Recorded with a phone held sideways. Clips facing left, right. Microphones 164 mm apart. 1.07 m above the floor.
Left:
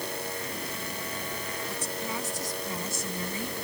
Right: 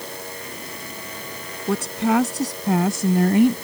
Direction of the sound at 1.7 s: 65° right (ahead or behind).